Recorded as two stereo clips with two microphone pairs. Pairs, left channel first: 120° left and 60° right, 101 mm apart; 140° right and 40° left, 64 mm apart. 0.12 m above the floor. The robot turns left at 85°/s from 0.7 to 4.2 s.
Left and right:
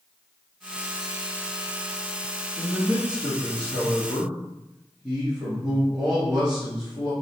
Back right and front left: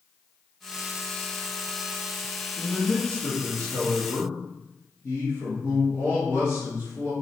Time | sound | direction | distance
2.6 | a man speaking | straight ahead | 1.8 m